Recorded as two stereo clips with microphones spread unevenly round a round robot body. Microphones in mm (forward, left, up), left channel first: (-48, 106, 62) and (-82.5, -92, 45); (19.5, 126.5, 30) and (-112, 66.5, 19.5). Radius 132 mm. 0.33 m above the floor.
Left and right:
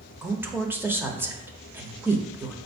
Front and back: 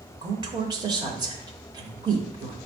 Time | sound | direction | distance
0.2 | a woman speaking | 165° right | 0.9 m